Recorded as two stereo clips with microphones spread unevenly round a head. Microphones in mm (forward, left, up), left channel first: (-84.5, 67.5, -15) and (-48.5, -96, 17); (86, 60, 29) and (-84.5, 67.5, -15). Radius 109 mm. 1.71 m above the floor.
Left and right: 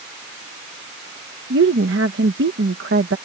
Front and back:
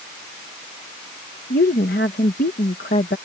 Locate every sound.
1.5 s a woman speaking: 55° right